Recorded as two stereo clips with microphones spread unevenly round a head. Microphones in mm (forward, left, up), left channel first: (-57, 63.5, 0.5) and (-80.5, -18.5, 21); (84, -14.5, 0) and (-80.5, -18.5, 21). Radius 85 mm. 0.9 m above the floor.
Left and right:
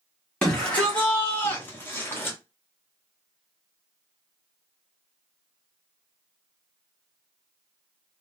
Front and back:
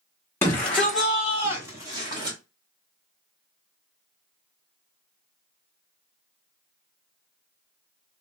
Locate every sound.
0.4 s a shout: 40° left, 0.9 m; by 2.4 s 115° left, 1.4 m